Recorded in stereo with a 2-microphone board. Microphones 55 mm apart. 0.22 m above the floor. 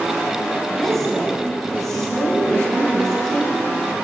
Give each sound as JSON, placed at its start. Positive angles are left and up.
{"t": 0.7, "sound": "a woman speaking", "side_deg": 10, "distance_m": 1.3}